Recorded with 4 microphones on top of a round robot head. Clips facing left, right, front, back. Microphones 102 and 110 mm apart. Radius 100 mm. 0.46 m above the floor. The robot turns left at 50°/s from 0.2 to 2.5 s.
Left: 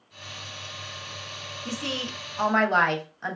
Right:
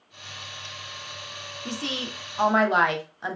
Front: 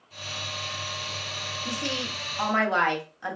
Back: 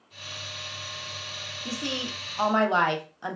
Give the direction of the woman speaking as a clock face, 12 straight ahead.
4 o'clock.